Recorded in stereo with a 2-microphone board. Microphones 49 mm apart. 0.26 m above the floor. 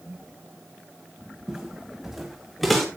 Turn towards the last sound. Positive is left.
turn(degrees=0)  # may be behind; listen again after turning